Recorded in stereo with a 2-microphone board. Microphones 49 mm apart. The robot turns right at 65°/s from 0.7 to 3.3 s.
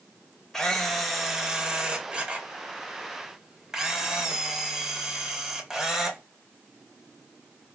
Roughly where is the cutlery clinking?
I don't hear cutlery clinking.